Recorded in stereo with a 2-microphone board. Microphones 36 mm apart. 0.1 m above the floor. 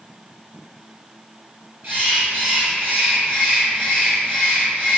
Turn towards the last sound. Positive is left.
turn(degrees=-55)  # may be behind; listen again after turning